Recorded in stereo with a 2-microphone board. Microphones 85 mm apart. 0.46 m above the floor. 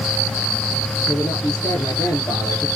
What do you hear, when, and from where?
1.1 s a man speaking: 50° left (ahead or behind), 7.5 m